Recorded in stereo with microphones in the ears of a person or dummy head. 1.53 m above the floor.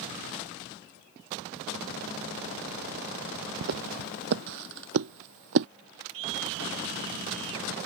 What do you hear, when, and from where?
3.6 s footsteps: 50° right (ahead or behind); by 5.7 s 60° right (ahead or behind)
6.1 s a scream: 75° right (ahead or behind)